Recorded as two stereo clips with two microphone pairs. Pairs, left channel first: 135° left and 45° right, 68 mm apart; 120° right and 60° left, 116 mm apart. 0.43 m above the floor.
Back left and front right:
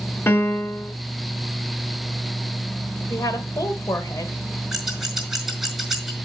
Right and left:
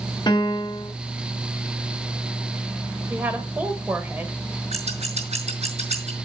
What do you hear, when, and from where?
0.3 s a piano: 170° right, 1.1 m
3.1 s a woman speaking: 135° left, 1.5 m
4.7 s scissors: 40° left, 5 m